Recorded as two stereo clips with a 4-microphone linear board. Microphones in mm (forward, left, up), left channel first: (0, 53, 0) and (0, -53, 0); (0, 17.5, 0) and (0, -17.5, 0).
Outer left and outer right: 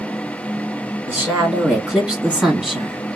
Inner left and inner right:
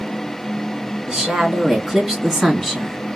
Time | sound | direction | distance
1.1 | a woman speaking | 15° right (ahead or behind) | 2.5 m